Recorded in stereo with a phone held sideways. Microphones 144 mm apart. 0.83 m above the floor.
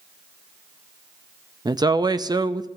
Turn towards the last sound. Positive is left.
turn(degrees=-30)  # may be behind; listen again after turning